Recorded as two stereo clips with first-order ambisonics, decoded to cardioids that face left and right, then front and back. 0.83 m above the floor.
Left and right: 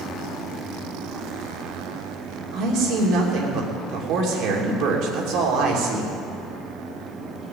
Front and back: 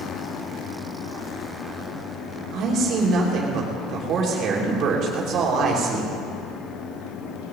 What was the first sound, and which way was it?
A man speaking, 125° right.